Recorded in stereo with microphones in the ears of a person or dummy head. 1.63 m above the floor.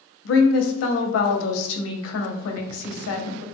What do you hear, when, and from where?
0.2 s a woman speaking: 80° left, 0.6 m